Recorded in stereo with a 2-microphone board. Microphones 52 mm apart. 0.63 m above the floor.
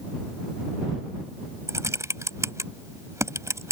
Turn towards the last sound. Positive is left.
turn(degrees=-75)  # may be behind; listen again after turning